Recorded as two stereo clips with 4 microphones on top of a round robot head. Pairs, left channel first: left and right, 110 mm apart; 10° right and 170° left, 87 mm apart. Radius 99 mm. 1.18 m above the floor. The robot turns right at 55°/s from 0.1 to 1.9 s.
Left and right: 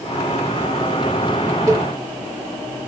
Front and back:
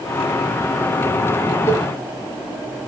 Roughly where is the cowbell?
Ahead right.